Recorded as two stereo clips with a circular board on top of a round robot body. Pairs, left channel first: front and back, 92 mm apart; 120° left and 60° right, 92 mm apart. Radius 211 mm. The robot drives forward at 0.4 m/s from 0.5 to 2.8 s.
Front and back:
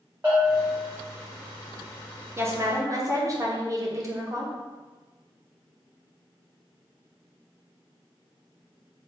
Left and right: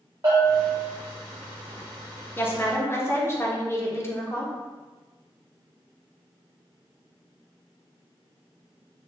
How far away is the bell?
About 0.5 m.